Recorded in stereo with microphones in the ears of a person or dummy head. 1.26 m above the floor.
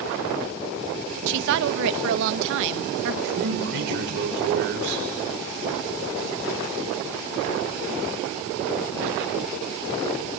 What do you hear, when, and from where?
1.3 s a woman speaking: 65° right (ahead or behind), 1.3 m
3.2 s a man speaking: 60° right (ahead or behind), 6 m